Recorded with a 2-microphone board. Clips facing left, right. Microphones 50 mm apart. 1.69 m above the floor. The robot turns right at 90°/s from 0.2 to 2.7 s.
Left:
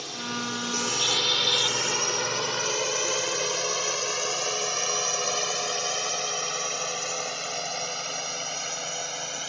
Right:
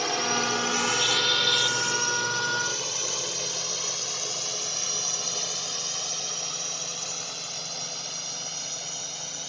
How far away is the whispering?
I don't hear whispering.